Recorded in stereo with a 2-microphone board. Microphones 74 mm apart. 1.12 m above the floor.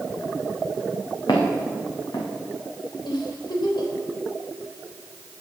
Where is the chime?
No chime in this recording.